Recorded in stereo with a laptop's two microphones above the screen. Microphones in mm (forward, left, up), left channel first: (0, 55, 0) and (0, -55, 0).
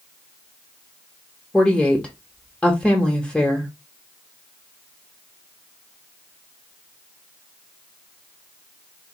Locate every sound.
1.5 s a woman speaking: 10° left (ahead or behind), 1.1 m